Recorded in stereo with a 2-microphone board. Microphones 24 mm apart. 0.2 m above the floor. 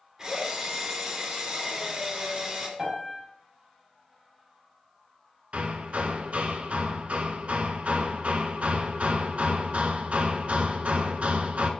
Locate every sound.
0.2 s a drill: 25° right (ahead or behind), 3 m
2.8 s a piano: 20° right (ahead or behind), 5 m
5.5 s hammering: 60° right (ahead or behind), 1.2 m